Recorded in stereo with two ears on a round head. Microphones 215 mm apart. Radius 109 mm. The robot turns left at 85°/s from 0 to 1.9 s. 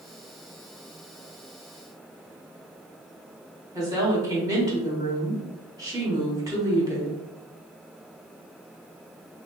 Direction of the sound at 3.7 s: 15° right (ahead or behind).